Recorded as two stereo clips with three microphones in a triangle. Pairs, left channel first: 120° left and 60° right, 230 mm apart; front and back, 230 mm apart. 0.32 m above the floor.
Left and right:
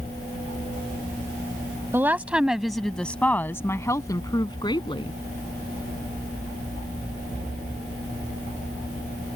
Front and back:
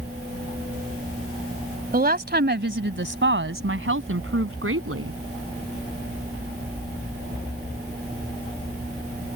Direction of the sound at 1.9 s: 140° right.